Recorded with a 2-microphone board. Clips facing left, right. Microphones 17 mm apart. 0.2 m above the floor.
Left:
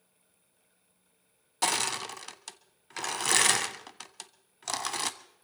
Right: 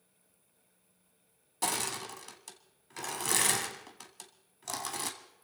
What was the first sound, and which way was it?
Crushing, 30° left (ahead or behind).